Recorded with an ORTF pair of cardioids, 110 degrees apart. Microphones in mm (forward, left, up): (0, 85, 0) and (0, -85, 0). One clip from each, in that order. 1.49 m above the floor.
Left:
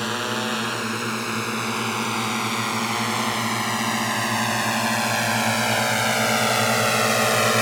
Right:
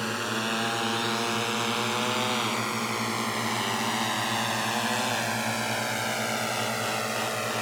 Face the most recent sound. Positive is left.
turn(degrees=65)